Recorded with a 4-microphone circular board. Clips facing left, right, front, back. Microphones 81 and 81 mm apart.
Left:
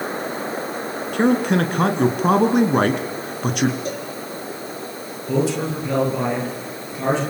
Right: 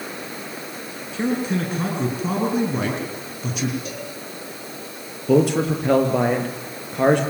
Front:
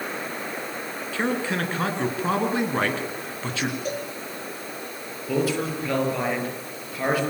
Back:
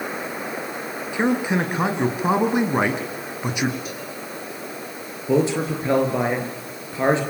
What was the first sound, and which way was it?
A man speaking, 105° left.